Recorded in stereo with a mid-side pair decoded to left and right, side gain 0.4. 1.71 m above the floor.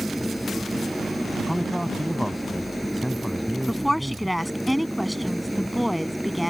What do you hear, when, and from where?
0.0 s an engine running: straight ahead
1.5 s a man speaking: straight ahead
3.7 s a woman speaking: 5° left